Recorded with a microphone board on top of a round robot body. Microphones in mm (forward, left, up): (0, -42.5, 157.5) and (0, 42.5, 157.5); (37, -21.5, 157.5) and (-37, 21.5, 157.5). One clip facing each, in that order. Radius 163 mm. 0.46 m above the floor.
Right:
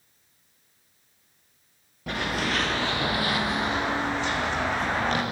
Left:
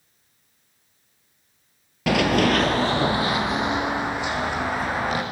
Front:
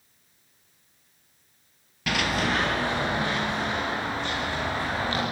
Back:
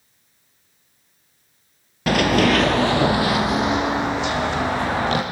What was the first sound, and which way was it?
Running footsteps, 95° left.